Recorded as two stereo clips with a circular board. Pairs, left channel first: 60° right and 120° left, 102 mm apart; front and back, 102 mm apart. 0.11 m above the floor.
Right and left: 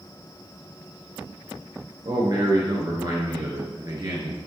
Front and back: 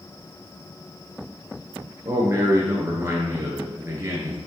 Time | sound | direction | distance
2.0 | a man speaking | 135° left | 1.7 m